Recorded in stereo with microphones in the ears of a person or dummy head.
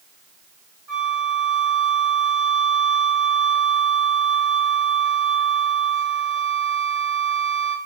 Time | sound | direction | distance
0.9 | a flute | 20° right (ahead or behind) | 1.8 m